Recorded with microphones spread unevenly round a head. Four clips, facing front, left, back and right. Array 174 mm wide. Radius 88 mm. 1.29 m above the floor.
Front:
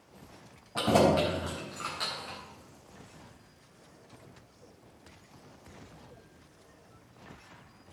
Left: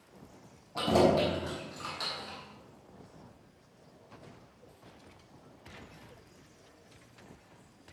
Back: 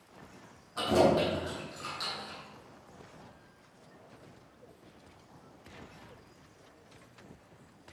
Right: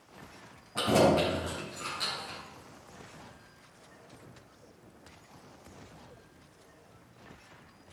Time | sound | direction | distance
0.8 | keys jangling | 10° left | 5 m